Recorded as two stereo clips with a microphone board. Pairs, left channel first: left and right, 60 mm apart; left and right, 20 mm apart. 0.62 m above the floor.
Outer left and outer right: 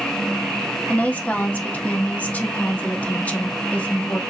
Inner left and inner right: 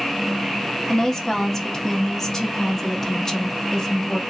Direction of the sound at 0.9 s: 25° left (ahead or behind).